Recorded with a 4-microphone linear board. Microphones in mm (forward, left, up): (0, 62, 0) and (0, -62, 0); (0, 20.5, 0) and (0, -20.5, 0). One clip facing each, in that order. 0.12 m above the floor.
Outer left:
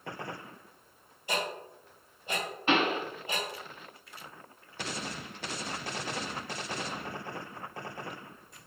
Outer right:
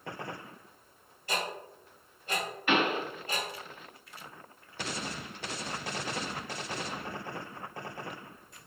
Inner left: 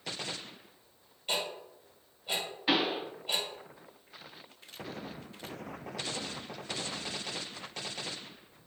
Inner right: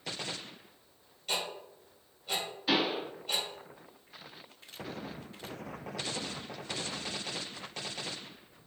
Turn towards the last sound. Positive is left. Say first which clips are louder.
# outer left 1 dB, even
turn(degrees=25)  # may be behind; listen again after turning